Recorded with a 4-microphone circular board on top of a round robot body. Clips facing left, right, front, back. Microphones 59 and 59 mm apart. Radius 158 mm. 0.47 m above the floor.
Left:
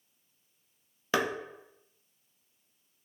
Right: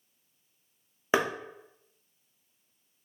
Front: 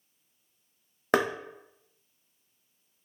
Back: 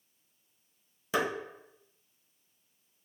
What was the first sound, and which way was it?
Knocking, 25° right.